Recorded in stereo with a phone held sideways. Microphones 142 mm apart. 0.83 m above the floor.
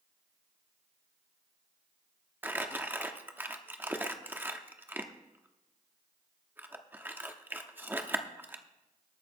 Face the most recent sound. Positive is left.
turn(degrees=-15)  # may be behind; listen again after turning